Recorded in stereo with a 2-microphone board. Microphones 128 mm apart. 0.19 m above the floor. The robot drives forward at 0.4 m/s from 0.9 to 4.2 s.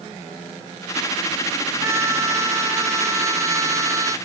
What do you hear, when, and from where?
1.8 s a trumpet: 20° right (ahead or behind); by 4.2 s 25° right (ahead or behind)